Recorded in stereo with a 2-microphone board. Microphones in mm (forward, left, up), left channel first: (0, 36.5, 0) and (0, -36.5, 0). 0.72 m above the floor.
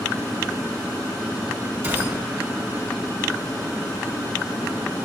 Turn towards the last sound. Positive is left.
turn(degrees=-35)  # may be behind; listen again after turning